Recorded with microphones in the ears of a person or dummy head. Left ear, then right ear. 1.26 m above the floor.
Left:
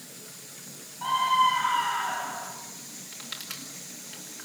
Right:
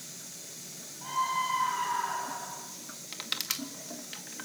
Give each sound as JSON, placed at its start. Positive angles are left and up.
{"t": 1.0, "sound": "a scream", "side_deg": 50, "distance_m": 8.5}
{"t": 3.1, "sound": "crushing", "side_deg": -35, "distance_m": 2.0}